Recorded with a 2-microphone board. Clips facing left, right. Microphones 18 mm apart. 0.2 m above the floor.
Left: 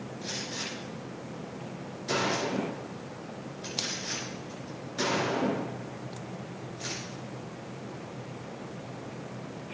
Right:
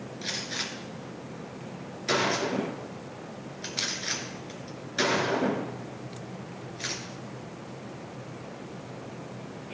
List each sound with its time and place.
0.2 s a gunshot: 55° right (ahead or behind), 2 m